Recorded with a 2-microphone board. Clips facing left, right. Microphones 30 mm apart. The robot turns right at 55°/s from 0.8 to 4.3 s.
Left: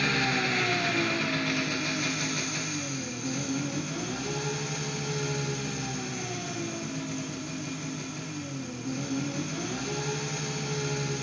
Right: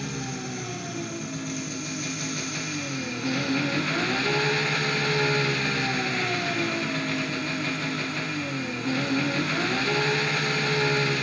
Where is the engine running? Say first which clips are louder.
Left 7 dB; 90° left, 1.2 m; by 11.2 s 80° right, 1.2 m.